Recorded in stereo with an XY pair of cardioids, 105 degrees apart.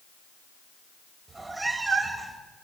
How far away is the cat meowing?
About 3 m.